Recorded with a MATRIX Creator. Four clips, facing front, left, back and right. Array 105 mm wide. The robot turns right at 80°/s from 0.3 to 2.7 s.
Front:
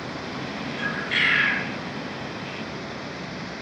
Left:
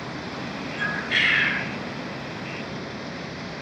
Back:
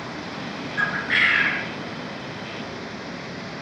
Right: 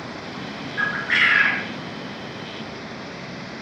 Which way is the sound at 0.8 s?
150° right.